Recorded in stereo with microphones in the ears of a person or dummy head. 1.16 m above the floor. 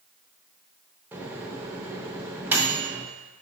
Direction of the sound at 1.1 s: 15° right (ahead or behind).